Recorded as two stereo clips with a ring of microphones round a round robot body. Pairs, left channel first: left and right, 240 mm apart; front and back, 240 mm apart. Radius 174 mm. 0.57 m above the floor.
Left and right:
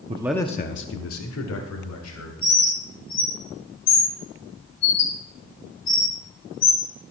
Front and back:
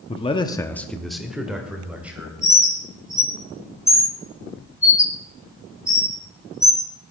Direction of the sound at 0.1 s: 50° right.